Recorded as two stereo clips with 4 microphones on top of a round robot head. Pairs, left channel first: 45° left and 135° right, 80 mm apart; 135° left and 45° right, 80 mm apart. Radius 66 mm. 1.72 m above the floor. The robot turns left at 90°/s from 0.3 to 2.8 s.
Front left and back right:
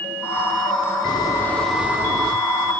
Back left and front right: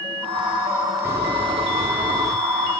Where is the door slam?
15° left, 4.5 m; by 2.4 s 100° right, 4.5 m.